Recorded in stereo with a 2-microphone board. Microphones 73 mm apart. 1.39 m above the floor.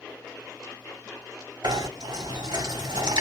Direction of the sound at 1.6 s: 85° right.